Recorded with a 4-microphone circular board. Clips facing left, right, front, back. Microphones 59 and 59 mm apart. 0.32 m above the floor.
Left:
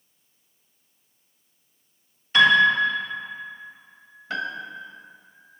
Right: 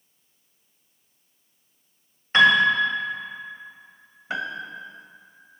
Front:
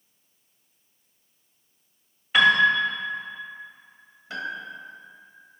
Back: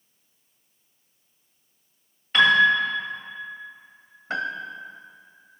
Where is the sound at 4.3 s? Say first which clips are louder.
Even, back 4 dB; 160° right, 0.6 m.